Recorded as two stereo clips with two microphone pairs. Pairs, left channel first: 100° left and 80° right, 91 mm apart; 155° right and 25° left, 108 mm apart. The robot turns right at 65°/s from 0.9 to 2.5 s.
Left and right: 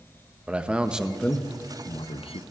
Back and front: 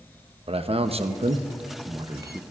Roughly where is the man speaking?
Ahead.